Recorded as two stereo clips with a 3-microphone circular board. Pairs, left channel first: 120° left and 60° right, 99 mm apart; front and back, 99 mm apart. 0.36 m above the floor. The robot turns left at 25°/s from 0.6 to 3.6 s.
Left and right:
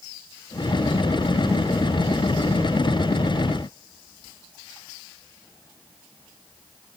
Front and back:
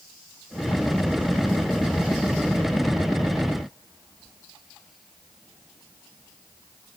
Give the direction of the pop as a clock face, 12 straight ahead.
I don't hear a pop.